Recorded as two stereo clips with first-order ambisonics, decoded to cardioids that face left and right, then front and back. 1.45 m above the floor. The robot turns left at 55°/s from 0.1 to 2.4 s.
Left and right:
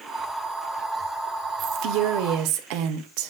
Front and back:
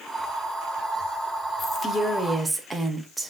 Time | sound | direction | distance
1.6 | a woman speaking | 55° right | 0.8 m